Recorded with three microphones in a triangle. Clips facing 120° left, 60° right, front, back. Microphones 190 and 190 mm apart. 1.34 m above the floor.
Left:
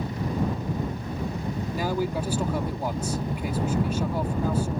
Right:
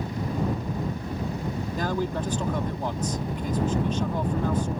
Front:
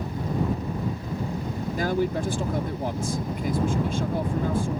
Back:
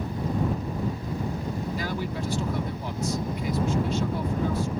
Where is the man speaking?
40° left.